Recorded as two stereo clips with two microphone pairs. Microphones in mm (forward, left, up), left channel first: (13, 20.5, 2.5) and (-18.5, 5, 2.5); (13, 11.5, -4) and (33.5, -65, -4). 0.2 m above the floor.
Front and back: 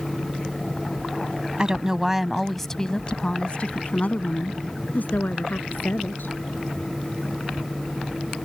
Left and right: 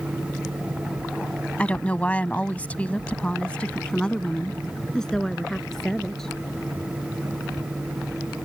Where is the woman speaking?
165° left; by 6.4 s 20° left.